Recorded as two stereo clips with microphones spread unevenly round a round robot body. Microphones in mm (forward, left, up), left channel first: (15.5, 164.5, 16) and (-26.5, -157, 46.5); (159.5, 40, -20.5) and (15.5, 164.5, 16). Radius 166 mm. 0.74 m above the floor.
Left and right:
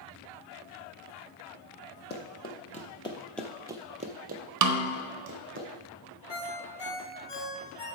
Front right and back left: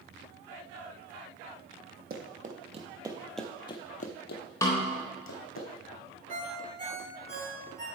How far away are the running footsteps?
About 1.3 m.